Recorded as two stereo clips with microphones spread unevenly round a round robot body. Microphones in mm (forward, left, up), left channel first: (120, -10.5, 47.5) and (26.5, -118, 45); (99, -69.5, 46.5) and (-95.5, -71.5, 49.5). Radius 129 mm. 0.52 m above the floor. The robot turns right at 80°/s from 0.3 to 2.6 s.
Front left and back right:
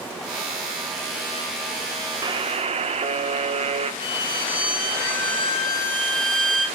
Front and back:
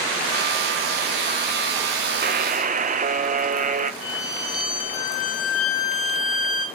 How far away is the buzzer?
About 1.0 m.